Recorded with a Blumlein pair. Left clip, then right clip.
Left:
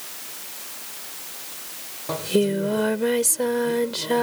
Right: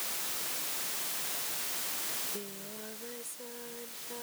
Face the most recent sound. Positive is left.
turn(degrees=40)